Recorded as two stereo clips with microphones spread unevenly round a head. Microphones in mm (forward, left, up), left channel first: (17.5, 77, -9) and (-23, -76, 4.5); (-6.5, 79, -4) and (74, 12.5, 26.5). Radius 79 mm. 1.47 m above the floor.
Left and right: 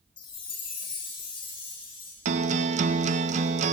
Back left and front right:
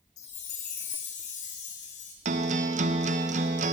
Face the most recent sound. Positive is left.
turn(degrees=-55)